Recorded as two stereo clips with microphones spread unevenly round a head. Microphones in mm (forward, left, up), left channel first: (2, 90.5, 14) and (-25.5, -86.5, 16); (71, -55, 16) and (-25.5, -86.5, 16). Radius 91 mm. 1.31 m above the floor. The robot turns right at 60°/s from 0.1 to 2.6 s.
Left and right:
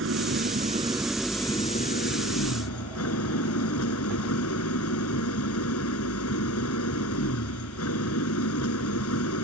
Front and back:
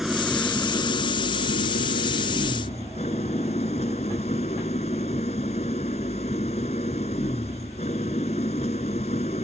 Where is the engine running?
75° right; by 9.4 s 75° left.